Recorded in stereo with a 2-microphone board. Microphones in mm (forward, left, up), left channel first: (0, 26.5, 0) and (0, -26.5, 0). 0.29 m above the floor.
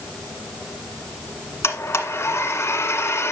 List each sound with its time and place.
1.6 s a blender: 50° left (ahead or behind), 1.6 m